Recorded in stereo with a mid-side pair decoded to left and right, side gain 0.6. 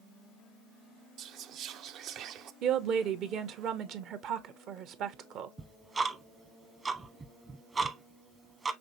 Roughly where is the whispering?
Ahead right.